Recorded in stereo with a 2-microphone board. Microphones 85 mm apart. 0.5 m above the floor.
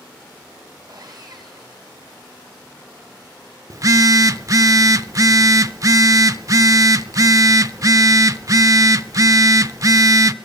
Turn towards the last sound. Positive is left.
turn(degrees=-45)  # may be behind; listen again after turning